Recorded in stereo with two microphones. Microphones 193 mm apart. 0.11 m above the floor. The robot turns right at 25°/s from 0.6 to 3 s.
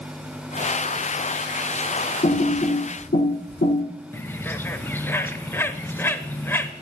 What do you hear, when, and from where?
2.2 s typing on a keyboard: 45° left (ahead or behind), 3 m; by 3.8 s 60° left (ahead or behind), 3 m
4.1 s a bird: 10° left (ahead or behind), 0.7 m